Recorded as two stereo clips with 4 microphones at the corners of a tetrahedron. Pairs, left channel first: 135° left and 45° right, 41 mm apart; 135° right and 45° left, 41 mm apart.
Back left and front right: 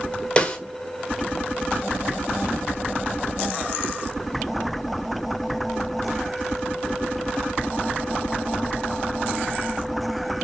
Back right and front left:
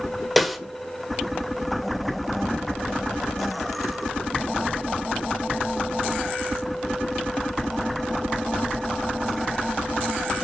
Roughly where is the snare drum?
Behind left.